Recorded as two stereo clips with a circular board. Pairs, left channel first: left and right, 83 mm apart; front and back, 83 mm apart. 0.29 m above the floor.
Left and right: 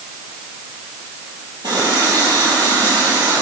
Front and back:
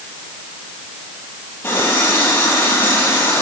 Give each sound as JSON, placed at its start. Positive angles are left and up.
{"t": 1.6, "sound": "a running tap", "azimuth_deg": -60, "distance_m": 5.5}